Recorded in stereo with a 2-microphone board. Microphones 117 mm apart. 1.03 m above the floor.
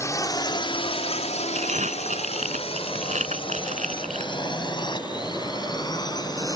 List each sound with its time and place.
0.0 s a drone: 25° left (ahead or behind); by 6.6 s 35° left (ahead or behind)
1.6 s crumpling: 85° right